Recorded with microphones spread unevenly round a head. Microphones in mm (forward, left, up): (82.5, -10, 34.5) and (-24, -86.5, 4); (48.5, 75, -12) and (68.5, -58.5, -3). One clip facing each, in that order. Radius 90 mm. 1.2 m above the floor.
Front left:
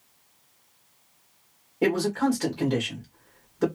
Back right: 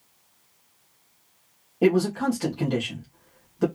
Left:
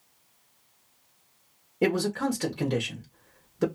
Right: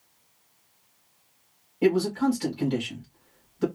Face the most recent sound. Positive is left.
turn(degrees=140)